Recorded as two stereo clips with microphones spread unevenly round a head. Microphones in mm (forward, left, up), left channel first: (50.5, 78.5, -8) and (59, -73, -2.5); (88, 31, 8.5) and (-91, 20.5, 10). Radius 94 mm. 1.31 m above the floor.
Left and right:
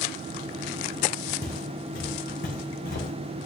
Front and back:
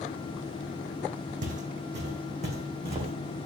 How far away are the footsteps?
About 3.5 m.